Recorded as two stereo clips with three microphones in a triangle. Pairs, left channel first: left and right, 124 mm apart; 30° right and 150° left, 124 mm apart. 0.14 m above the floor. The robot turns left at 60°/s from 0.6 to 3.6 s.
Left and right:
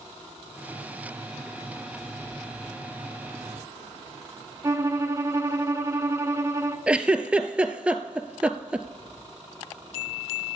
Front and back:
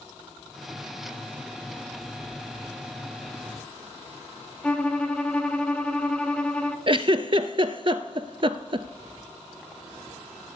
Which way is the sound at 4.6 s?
95° right.